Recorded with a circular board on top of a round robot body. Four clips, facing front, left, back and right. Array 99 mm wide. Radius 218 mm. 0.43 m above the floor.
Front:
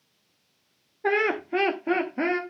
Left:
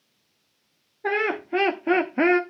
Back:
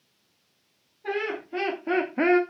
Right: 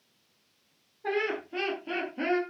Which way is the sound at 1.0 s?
35° left.